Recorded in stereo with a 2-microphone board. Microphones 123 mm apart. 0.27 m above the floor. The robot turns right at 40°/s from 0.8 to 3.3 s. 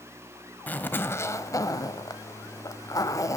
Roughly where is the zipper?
Ahead left.